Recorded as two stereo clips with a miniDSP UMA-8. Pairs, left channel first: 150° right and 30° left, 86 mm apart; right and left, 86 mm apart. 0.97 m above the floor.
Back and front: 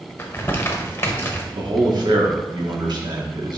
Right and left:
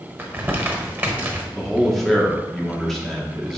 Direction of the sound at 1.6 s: Straight ahead.